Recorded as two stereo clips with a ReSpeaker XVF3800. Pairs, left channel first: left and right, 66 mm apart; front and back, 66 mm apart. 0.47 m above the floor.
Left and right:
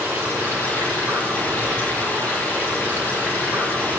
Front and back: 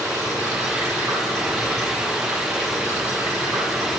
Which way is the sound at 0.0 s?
145° right.